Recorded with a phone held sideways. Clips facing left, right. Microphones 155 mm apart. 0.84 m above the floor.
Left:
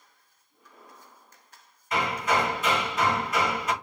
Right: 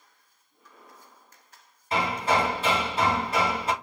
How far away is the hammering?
About 0.6 m.